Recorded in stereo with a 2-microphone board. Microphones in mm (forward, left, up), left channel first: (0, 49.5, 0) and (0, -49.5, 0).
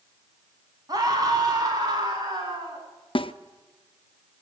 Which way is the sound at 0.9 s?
40° right (ahead or behind).